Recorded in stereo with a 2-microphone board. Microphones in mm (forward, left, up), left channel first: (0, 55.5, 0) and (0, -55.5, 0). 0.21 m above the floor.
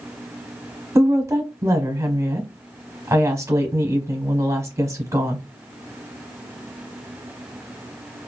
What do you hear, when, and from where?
0.9 s a woman speaking: 25° right (ahead or behind), 1.0 m